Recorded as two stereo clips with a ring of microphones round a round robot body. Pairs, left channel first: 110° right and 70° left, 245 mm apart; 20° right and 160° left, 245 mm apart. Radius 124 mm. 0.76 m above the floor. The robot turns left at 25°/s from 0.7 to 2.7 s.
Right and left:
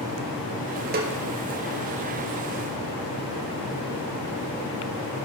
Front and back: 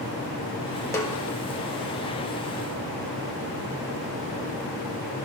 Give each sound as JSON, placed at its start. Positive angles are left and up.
{"t": 0.9, "sound": "a snare drum", "azimuth_deg": 50, "distance_m": 1.2}